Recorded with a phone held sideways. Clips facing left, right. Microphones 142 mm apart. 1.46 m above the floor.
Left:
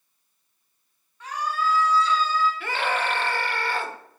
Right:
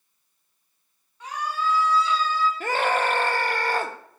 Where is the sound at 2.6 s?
45° right (ahead or behind), 1.0 m.